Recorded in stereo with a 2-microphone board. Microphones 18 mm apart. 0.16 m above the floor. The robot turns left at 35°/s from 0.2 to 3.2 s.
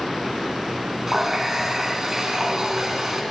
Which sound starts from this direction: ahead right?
A running tap, at 1.1 s.